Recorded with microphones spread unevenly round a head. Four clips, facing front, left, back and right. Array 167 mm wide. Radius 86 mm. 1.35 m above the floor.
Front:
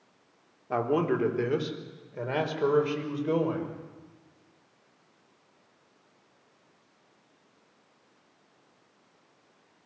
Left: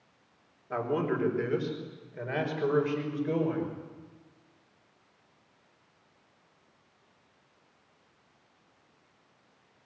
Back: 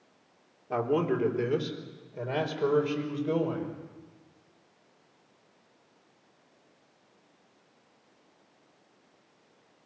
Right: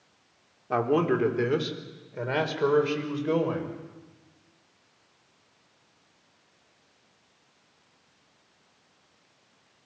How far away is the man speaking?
About 3.5 m.